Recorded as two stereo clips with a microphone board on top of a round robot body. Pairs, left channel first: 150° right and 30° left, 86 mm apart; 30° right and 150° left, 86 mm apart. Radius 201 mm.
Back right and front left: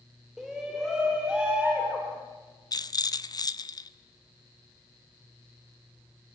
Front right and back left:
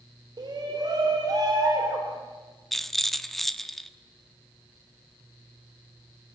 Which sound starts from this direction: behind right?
A rattle, at 2.7 s.